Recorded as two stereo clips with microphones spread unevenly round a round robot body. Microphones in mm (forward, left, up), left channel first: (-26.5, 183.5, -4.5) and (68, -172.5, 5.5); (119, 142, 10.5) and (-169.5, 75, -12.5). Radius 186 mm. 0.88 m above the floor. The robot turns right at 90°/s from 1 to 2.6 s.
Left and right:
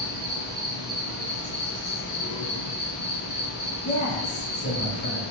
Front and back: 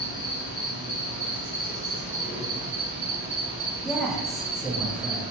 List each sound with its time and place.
0.0 s an insect: straight ahead, 0.9 m; by 5.3 s 145° left, 0.9 m
3.9 s a man speaking: 115° left, 0.6 m